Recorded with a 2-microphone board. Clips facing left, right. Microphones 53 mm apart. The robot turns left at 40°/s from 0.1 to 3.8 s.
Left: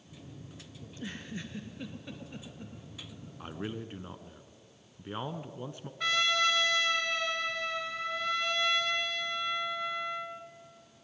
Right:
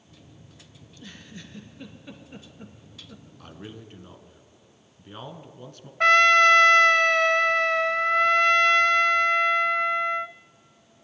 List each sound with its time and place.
0.8 s a giggle: 35° left (ahead or behind), 2 m; by 3.2 s 40° right (ahead or behind), 2 m
3.4 s a man speaking: 20° left (ahead or behind), 1.1 m
6.0 s a trumpet: 55° right (ahead or behind), 0.6 m